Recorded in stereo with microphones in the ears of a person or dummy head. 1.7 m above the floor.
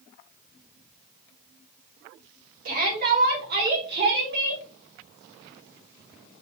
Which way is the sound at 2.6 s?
45° right (ahead or behind).